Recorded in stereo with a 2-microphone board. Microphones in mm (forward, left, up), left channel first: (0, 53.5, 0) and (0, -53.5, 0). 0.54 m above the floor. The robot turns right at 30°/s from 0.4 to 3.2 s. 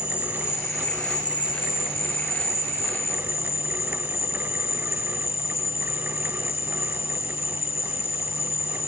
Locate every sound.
0.0 s an insect: 25° left, 0.9 m; by 8.9 s 110° left, 0.9 m